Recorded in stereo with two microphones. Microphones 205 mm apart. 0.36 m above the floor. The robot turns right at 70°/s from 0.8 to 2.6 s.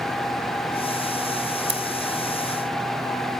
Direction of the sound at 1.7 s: 70° right (ahead or behind).